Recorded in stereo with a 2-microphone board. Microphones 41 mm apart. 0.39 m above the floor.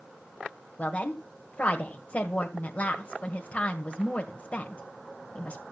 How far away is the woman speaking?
About 1.7 m.